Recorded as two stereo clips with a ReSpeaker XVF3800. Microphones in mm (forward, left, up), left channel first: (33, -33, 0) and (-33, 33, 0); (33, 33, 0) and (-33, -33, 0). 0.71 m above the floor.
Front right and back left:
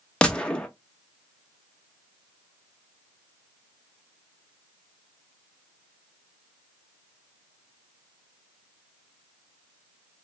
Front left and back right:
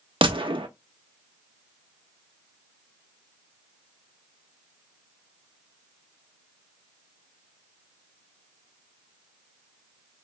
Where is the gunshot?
125° right, 0.6 m.